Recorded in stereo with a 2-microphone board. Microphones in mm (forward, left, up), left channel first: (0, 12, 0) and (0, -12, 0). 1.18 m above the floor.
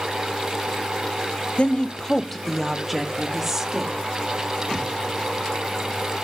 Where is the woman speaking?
50° left (ahead or behind), 0.7 m; by 3.9 s 15° right (ahead or behind), 1.9 m.